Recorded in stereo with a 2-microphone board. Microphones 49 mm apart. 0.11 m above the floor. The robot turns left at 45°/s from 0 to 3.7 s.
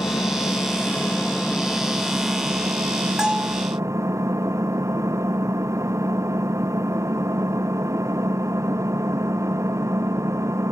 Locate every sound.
0.0 s an engine running: 70° left; by 10.7 s 95° right
3.2 s a bell: 15° right (ahead or behind); by 3.6 s 35° right (ahead or behind)